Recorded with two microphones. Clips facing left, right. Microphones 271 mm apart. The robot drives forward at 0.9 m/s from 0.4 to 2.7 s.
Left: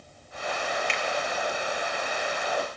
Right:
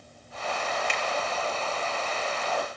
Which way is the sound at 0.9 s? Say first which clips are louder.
Even; 45° right (ahead or behind).